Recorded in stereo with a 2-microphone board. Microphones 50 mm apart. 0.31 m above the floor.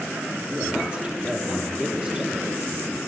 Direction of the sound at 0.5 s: 25° right (ahead or behind).